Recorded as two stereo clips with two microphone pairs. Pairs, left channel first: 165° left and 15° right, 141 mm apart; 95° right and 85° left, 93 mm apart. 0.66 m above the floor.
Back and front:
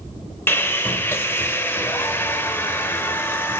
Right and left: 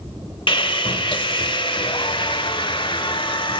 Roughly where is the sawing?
Behind right.